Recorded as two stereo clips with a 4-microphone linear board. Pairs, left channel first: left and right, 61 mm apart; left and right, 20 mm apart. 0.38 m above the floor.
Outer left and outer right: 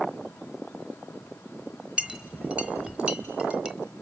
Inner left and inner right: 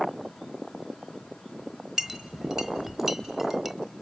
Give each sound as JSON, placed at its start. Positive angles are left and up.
{"t": 2.0, "sound": "a clink", "side_deg": -15, "distance_m": 1.2}